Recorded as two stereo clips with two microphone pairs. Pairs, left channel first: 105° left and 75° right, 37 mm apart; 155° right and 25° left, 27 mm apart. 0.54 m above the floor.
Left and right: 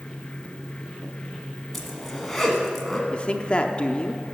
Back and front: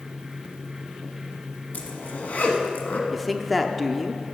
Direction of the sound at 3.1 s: 110° left.